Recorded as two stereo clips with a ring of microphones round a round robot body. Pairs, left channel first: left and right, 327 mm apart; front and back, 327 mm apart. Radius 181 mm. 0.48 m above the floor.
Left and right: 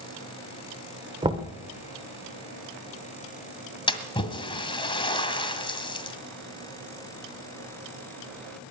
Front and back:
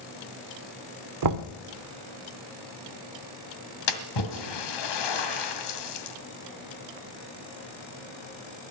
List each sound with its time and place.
1.2 s knocking: 165° right, 1.1 m
3.9 s a splash: 15° left, 1.8 m